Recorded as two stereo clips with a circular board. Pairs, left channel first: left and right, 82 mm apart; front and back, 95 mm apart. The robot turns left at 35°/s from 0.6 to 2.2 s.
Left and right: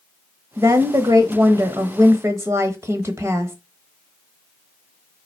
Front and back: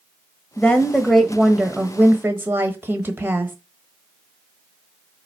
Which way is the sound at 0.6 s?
70° right.